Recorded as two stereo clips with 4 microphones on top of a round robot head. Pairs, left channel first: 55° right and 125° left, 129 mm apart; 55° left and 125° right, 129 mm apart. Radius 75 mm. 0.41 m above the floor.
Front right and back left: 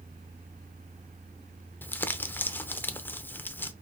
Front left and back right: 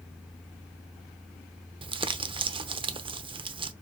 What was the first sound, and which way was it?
Crumpling, 125° right.